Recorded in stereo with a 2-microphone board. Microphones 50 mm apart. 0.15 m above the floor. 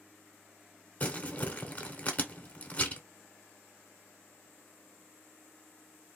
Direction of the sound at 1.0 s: 30° left (ahead or behind).